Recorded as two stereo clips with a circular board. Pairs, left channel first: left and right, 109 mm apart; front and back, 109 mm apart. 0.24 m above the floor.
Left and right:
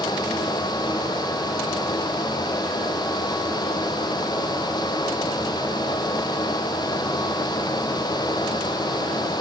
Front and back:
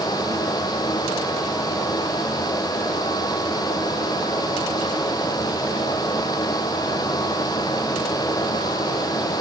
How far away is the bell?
I don't hear a bell.